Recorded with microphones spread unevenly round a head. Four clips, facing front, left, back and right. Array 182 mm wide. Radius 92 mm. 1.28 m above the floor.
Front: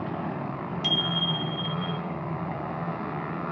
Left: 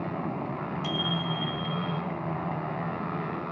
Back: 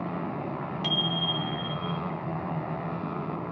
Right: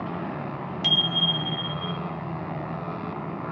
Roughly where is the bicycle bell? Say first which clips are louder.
Right 2 dB, front 1 dB; right.